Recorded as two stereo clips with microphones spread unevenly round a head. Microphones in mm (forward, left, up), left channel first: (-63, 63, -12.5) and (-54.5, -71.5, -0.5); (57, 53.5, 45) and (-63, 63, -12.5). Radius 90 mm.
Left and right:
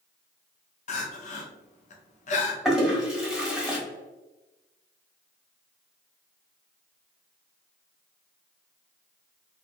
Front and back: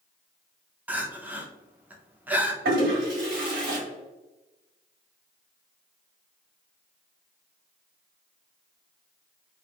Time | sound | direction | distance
0.9 | crying | 115° left | 0.6 m
2.6 | a toilet flushing | 175° right | 1.6 m